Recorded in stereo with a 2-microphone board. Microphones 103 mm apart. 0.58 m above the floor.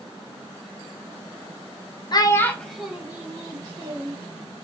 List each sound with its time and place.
2.1 s a child speaking: 40° left (ahead or behind), 0.5 m; by 4.2 s 35° right (ahead or behind), 1.3 m